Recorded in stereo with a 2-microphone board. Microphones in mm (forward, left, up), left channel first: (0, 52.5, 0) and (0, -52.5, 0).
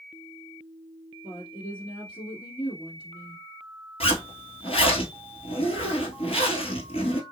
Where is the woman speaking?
50° left (ahead or behind), 1.6 m.